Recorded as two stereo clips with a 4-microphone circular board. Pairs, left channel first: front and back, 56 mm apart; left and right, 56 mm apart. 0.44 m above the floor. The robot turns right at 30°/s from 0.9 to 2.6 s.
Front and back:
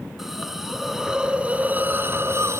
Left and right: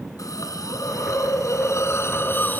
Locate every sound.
0.2 s a hiss: 95° left, 1.6 m; by 2.6 s 150° left, 1.6 m